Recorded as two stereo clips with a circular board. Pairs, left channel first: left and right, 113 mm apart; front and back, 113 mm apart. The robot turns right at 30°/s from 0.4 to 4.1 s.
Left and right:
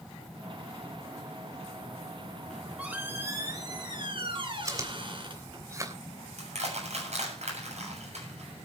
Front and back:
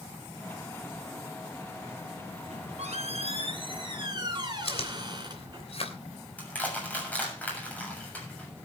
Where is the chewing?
30° right, 3 m.